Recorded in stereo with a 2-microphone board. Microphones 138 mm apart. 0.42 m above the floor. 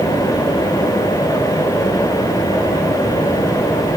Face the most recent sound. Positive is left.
No sound to turn to.